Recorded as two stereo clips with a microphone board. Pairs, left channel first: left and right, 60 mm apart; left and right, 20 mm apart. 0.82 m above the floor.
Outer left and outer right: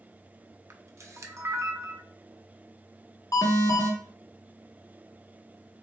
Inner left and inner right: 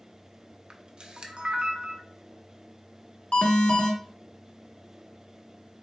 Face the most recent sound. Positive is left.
turn(degrees=80)